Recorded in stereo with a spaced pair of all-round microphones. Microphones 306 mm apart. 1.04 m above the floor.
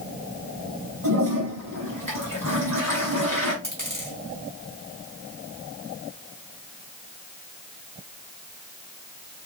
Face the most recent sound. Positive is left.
turn(degrees=-75)  # may be behind; listen again after turning